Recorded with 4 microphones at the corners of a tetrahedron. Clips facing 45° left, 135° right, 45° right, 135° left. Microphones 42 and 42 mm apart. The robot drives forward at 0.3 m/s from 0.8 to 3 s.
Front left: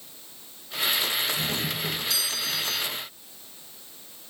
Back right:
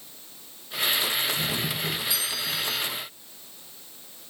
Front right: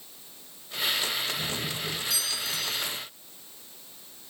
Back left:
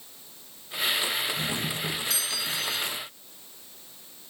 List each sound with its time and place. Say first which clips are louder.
1.4 s a doorbell: even, back left 2 dB; 150° left, 8 m; by 2.8 s 155° left, 8 m